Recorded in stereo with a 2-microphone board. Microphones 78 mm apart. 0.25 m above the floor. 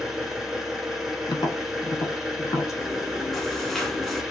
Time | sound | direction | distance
0.0 | an engine running | 5° right (ahead or behind) | 0.9 m
1.3 | tapping | 75° left (ahead or behind) | 0.7 m
2.8 | chewing | 5° left (ahead or behind) | 0.7 m